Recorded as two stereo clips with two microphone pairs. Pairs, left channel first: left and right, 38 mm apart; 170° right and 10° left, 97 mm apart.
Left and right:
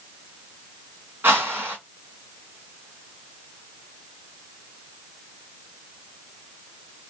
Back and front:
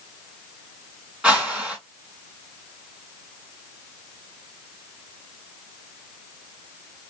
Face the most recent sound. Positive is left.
turn(degrees=-65)